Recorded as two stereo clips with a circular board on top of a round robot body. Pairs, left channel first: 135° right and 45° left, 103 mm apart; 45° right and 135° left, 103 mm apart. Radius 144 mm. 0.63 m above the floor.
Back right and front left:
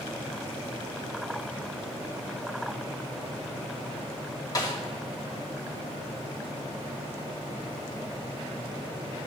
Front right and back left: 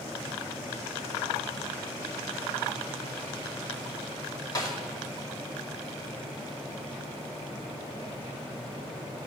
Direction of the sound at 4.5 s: 85° right.